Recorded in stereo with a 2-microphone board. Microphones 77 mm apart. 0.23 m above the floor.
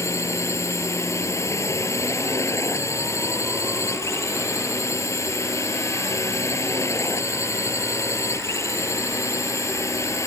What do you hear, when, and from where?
0.0 s a drone: 40° left (ahead or behind)